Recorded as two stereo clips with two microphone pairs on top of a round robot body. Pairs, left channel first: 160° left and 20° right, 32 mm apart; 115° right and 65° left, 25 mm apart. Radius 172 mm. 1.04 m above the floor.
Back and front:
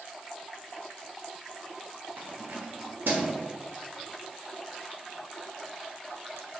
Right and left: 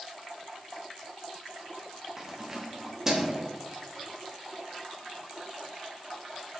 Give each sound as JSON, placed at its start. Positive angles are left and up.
{"t": 2.2, "sound": "keys jangling", "azimuth_deg": -10, "distance_m": 1.2}